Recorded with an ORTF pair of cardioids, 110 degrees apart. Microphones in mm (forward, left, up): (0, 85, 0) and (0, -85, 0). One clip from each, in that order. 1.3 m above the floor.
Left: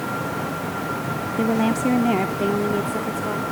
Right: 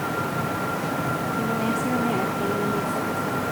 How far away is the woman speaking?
About 3 m.